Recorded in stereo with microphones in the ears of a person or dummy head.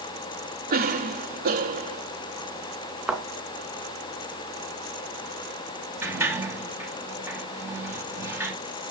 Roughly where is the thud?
Centre.